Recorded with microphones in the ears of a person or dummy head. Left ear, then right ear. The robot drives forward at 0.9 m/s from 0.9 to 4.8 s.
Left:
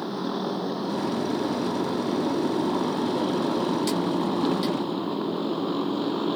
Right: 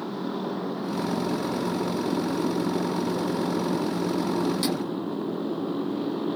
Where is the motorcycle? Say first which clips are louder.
Left 2 dB; 20° left (ahead or behind); by 6.4 s 25° left (ahead or behind).